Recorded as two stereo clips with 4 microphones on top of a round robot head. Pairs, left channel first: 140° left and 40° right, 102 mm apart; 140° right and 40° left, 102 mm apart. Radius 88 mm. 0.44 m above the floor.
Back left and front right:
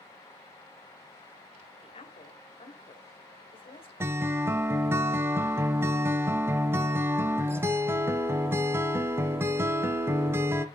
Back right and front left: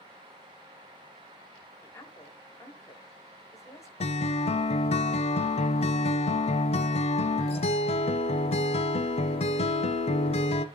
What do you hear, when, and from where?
1.8 s a woman speaking: 160° left, 2.0 m
4.0 s a guitar: 110° right, 0.6 m